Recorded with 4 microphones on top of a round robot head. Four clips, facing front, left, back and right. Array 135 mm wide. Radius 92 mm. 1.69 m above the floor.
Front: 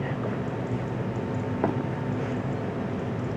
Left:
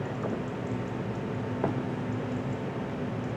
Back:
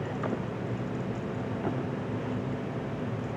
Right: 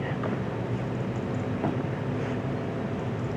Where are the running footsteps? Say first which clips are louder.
Even, front 7 dB; 10° left, 4 m.